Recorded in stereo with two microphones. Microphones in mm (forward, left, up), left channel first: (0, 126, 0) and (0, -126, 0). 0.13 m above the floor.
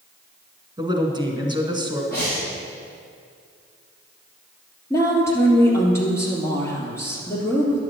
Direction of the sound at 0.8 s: 20° right (ahead or behind).